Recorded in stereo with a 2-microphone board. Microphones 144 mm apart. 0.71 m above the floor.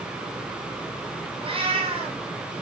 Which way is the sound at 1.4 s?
40° right (ahead or behind).